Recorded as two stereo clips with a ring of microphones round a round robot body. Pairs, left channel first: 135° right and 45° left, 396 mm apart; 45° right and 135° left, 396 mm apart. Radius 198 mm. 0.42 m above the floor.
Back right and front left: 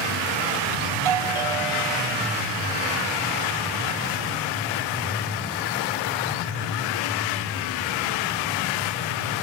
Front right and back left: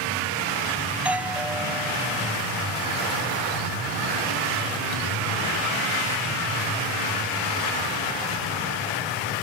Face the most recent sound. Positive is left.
turn(degrees=50)